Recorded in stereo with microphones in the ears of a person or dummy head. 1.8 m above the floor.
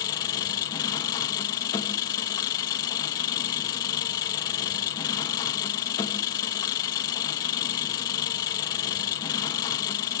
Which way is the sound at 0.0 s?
20° left (ahead or behind).